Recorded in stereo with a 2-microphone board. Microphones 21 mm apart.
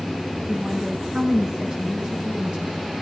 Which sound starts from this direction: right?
A woman speaking, at 0.5 s.